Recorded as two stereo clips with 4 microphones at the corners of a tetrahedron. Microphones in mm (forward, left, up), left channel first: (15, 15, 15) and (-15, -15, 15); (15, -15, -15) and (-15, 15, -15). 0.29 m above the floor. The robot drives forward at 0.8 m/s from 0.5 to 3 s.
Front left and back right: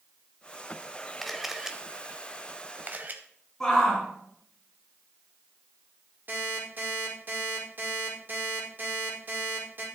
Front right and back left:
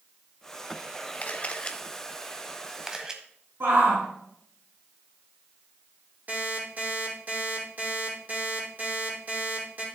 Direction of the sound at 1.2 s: 40° right.